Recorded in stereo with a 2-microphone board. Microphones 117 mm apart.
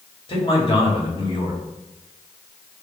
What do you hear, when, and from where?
0.3 s a man speaking: 50° left (ahead or behind), 1.3 m